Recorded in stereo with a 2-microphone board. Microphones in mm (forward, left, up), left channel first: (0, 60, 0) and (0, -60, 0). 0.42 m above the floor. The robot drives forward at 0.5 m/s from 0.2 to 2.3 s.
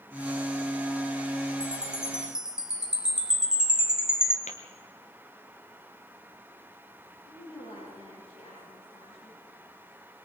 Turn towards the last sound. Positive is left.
turn(degrees=55)  # may be behind; listen again after turning